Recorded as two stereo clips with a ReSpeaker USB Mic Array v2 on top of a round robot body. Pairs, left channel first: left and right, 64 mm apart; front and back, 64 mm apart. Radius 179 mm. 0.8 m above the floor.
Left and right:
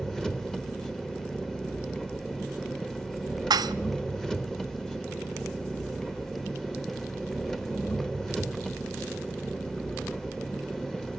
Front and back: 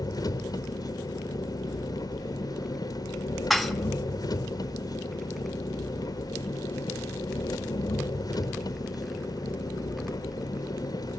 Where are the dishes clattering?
90° right, 0.7 m.